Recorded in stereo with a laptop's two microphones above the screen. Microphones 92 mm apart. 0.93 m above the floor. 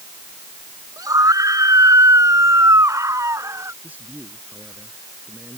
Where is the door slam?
No door slam in this recording.